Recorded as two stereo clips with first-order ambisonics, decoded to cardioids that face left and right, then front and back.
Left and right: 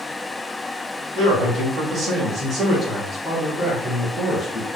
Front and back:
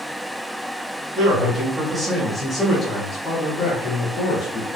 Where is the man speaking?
125° right, 1.5 m; by 4.8 s 15° left, 1.9 m.